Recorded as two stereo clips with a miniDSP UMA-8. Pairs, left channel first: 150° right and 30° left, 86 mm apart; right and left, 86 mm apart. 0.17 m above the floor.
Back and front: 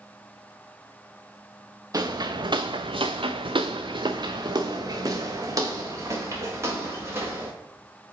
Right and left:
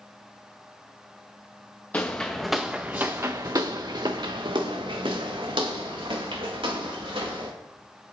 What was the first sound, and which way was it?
Footsteps, 20° right.